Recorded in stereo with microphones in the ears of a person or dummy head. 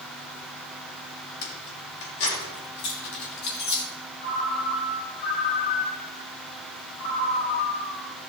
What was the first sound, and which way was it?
Keys jangling, 65° left (ahead or behind).